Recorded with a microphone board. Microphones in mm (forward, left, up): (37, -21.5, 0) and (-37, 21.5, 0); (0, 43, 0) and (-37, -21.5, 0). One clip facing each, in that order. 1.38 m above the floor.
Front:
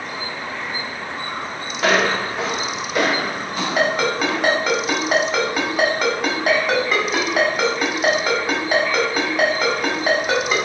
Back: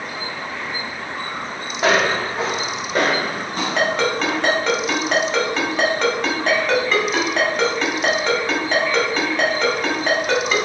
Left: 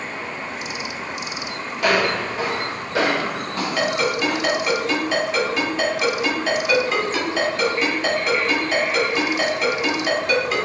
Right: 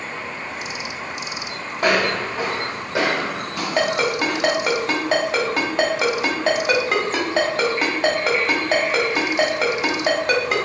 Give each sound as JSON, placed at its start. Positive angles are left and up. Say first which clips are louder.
{"t": 1.8, "sound": "footsteps", "louder": "even, even", "azimuth_deg": -150, "distance_m": 2.0}
{"t": 3.8, "sound": "a ringtone", "louder": "front 1 dB, right 2 dB", "azimuth_deg": -110, "distance_m": 1.6}